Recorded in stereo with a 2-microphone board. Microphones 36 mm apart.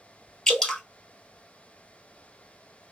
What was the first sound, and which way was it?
Dripping, 15° left (ahead or behind).